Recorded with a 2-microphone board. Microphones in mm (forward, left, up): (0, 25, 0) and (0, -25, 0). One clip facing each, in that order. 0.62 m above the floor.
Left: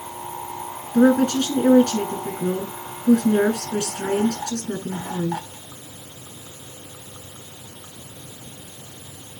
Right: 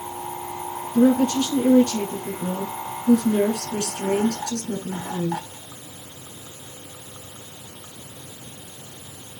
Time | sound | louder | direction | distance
0.9 | a woman speaking | left 1 dB | 80° left | 6.5 m